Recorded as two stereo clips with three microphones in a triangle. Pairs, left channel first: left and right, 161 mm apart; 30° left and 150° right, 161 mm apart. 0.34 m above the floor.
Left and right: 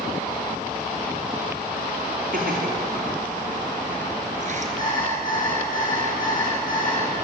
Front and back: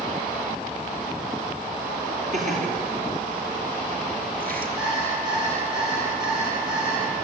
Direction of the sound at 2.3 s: 115° right.